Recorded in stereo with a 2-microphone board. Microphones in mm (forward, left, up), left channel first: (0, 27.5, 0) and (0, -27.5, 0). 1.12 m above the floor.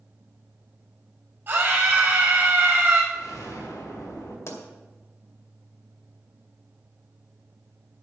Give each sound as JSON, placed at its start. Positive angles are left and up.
{"t": 1.5, "sound": "a scream", "side_deg": -40, "distance_m": 5.0}
{"t": 3.1, "sound": "an explosion", "side_deg": 75, "distance_m": 4.5}
{"t": 4.5, "sound": "a pop", "side_deg": 60, "distance_m": 2.0}